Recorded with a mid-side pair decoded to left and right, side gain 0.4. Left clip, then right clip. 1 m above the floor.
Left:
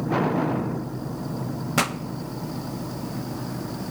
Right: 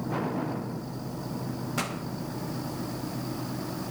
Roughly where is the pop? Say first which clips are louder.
Left 9 dB; ahead left.